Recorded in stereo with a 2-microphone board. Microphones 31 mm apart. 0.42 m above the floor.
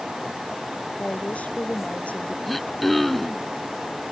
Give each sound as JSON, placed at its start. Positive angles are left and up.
{"t": 1.0, "sound": "a woman speaking", "side_deg": 40}
{"t": 2.5, "sound": "throat clearing", "side_deg": 0}